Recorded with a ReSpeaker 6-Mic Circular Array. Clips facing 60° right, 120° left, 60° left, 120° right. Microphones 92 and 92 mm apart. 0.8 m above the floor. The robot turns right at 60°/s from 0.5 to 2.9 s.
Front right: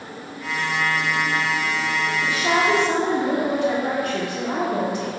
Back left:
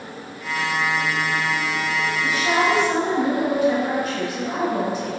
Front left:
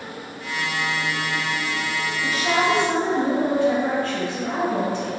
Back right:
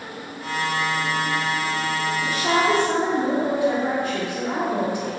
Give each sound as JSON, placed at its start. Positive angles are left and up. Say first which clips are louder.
{"t": 2.2, "sound": "a woman speaking", "louder": "even, even", "azimuth_deg": -85, "distance_m": 1.7}